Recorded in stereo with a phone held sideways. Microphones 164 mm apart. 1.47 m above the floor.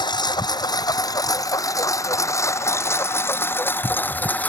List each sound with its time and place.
0.0 s a lawn mower: 25° left (ahead or behind); by 4.5 s 10° left (ahead or behind)